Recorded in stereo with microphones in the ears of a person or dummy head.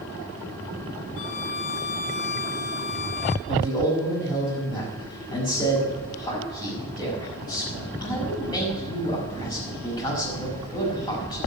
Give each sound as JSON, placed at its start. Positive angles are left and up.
{"t": 1.2, "sound": "a violin", "side_deg": 45, "distance_m": 0.8}
{"t": 3.5, "sound": "a man speaking", "side_deg": 25, "distance_m": 6.0}